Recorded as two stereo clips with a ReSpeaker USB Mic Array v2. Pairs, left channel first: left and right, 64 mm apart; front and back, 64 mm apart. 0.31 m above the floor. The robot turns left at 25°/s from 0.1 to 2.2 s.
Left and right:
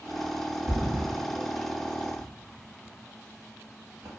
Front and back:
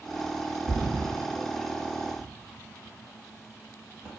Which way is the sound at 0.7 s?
105° right.